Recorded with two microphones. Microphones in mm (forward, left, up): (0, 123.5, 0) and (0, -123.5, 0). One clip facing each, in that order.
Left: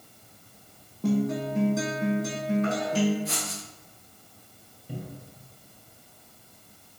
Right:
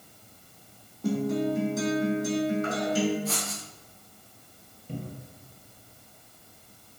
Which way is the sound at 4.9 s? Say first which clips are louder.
Right 1 dB; 10° left (ahead or behind).